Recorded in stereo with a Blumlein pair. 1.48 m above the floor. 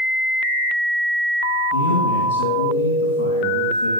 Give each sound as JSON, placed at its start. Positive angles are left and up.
{"t": 1.7, "sound": "a man speaking", "azimuth_deg": 65, "distance_m": 2.5}